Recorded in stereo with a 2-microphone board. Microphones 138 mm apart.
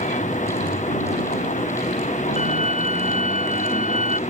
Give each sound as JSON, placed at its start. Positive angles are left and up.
{"t": 0.0, "sound": "a vehicle", "side_deg": 65}
{"t": 2.4, "sound": "a violin", "side_deg": -50}